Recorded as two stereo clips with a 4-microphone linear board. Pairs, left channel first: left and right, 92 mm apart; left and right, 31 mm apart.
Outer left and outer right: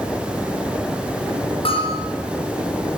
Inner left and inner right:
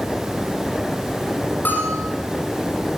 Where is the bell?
80° left, 6.5 m.